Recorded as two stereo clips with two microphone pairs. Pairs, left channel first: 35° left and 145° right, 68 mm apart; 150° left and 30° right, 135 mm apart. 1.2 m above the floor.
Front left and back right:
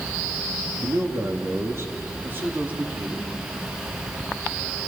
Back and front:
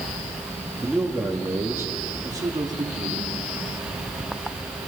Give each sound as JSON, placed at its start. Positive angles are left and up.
{"t": 0.8, "sound": "a man speaking", "azimuth_deg": -115, "distance_m": 2.5}